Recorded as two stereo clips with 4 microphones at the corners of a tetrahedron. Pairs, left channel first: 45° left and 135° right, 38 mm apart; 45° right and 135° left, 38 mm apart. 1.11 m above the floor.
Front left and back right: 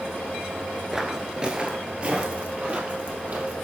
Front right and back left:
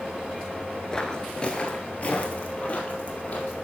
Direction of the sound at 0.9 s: 80° right.